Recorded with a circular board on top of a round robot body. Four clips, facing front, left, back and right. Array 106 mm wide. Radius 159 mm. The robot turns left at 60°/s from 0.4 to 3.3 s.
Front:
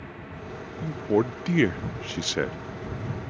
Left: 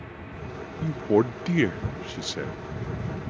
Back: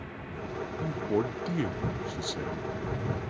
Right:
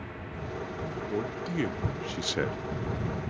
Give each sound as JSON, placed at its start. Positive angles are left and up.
{"t": 0.8, "sound": "a man speaking", "azimuth_deg": 80}